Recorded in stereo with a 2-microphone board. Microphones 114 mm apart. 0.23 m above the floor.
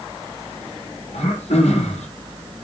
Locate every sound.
1.1 s throat clearing: 70° left (ahead or behind), 5 m